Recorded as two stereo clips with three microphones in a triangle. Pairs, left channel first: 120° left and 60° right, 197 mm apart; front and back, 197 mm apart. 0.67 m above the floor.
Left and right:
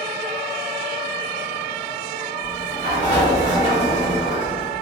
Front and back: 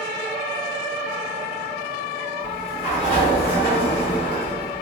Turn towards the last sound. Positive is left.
turn(degrees=140)